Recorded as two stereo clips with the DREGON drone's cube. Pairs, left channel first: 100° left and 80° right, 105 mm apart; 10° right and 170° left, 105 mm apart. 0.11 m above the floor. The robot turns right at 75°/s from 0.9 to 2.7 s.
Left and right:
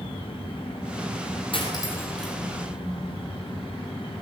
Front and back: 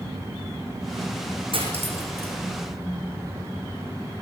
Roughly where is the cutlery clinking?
Behind left.